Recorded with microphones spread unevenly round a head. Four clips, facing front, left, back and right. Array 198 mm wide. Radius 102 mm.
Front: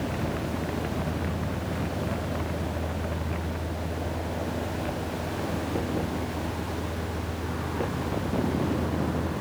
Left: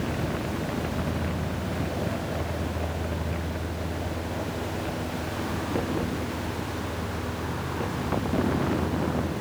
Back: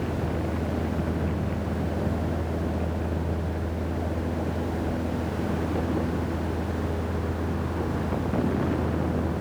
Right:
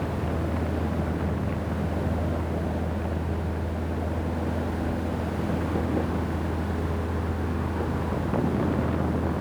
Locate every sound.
Only background noise.